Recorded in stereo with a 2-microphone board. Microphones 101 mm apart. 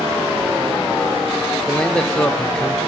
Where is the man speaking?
10° left (ahead or behind), 1.0 m.